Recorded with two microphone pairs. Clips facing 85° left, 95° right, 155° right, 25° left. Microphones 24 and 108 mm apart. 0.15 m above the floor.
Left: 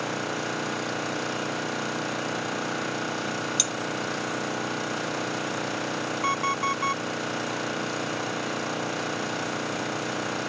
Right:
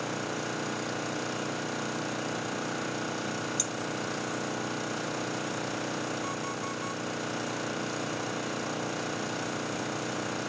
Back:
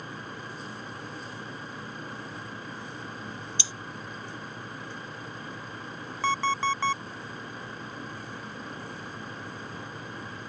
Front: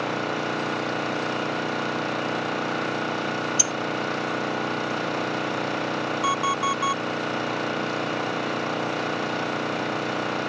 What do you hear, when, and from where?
0.0 s an engine running: 15° left
3.6 s cutlery clinking: 55° left
6.2 s an alarm clock: 100° left